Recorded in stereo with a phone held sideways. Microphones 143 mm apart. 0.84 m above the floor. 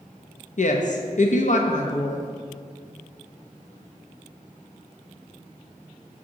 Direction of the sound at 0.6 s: 60° left (ahead or behind).